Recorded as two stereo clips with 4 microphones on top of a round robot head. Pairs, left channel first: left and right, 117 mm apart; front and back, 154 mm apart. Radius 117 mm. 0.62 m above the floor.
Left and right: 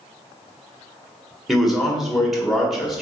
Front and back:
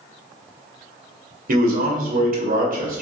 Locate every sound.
1.5 s a man speaking: 175° right, 1.4 m